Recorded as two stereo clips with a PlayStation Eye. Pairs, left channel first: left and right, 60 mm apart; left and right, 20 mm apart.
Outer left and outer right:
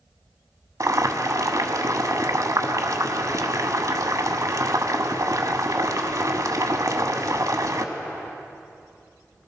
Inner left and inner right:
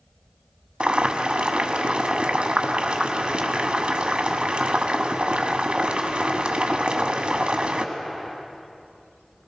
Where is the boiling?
65° right (ahead or behind), 1.1 m.